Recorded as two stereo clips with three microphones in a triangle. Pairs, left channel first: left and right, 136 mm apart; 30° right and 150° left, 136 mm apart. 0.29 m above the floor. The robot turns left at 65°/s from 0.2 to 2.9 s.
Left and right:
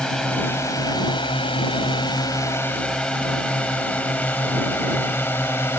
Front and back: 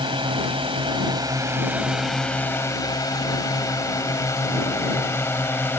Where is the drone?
170° left; by 5.8 s 30° left.